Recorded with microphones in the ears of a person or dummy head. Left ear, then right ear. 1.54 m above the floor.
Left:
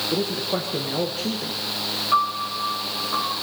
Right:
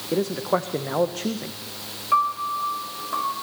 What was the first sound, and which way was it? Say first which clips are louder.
A man speaking: right 1 dB; 45° right (ahead or behind).